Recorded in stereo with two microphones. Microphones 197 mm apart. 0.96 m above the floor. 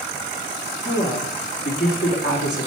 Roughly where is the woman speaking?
Left.